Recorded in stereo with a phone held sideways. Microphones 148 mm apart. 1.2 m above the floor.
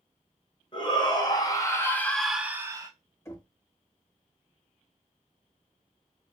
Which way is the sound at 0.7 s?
35° left (ahead or behind).